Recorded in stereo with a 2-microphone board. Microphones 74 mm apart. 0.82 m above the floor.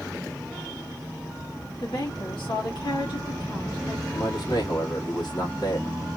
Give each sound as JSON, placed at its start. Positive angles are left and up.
{"t": 1.8, "sound": "a woman speaking", "side_deg": 75, "distance_m": 1.3}
{"t": 4.1, "sound": "a man speaking", "side_deg": 65, "distance_m": 1.5}